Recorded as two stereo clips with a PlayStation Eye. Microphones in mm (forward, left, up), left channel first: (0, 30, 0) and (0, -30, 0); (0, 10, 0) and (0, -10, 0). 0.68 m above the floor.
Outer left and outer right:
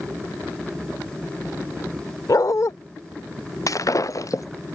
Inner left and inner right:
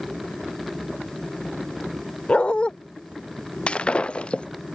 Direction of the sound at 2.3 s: 75° left (ahead or behind).